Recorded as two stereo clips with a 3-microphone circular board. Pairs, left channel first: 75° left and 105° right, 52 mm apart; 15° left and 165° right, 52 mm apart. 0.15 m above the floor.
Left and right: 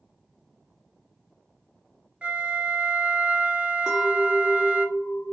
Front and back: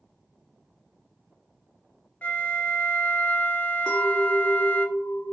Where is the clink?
35° right, 1.2 m.